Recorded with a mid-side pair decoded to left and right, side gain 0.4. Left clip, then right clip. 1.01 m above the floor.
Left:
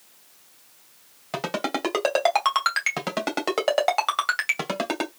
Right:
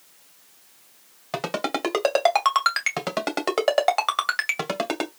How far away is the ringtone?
About 2 m.